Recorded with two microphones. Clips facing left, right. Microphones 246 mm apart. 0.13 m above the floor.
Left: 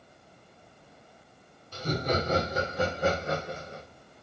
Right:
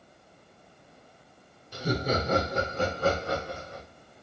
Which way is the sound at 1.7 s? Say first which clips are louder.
Right 1 dB; 15° right (ahead or behind).